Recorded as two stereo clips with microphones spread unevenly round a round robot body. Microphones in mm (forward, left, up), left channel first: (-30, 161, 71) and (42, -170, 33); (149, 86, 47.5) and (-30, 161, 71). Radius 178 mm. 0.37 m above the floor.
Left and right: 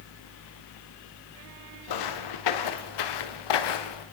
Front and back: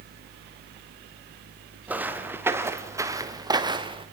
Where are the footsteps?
75° left, 4 m; by 4.1 s 95° left, 3 m.